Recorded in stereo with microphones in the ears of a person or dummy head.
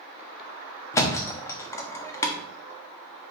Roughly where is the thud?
Centre.